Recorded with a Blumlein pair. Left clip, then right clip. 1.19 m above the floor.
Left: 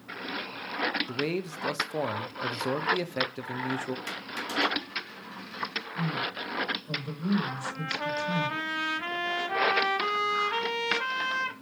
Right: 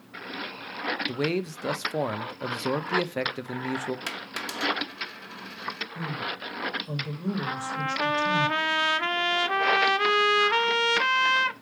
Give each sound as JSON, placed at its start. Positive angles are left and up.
{"t": 1.1, "sound": "a man speaking", "azimuth_deg": -10, "distance_m": 0.6}
{"t": 4.1, "sound": "a dropped coin", "azimuth_deg": -45, "distance_m": 2.0}
{"t": 6.0, "sound": "a man speaking", "azimuth_deg": -20, "distance_m": 1.9}
{"t": 7.5, "sound": "a trumpet", "azimuth_deg": -25, "distance_m": 0.6}